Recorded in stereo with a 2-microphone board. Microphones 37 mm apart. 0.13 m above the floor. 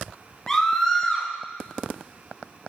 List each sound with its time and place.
0.5 s a scream: 15° left (ahead or behind), 1.5 m